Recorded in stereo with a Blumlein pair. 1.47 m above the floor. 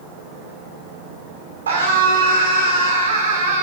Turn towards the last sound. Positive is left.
turn(degrees=-65)